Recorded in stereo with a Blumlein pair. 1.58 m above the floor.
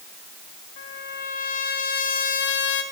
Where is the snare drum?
No snare drum in this recording.